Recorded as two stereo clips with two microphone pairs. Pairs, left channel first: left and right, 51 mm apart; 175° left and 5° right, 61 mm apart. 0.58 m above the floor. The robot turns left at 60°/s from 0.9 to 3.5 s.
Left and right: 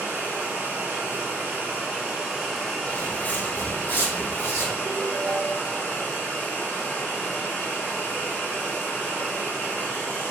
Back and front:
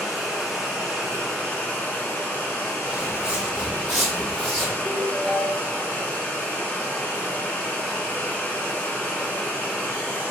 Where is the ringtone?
125° right, 0.7 m.